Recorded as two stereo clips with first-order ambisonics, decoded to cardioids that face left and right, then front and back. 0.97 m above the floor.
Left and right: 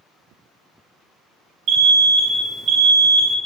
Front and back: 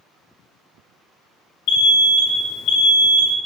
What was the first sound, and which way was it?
An alarm, 35° right.